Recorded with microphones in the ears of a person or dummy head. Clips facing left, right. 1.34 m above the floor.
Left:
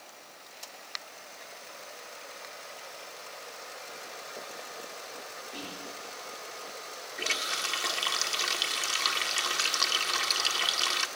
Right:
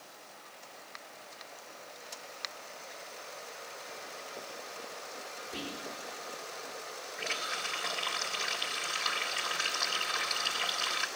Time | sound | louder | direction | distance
5.5 | whispering | right 2 dB | 20° right (ahead or behind) | 4 m
7.2 | a running tap | left 3 dB | 55° left (ahead or behind) | 2 m